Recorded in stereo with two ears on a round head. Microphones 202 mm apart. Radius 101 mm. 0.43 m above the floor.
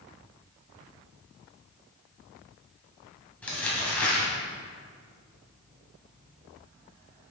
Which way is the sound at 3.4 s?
5° left (ahead or behind).